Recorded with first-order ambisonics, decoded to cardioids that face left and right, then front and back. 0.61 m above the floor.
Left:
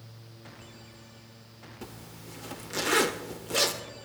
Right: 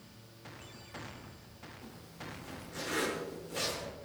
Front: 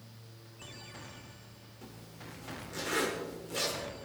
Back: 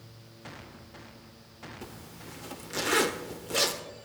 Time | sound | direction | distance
1.8 | a zipper | 125° left | 1.2 m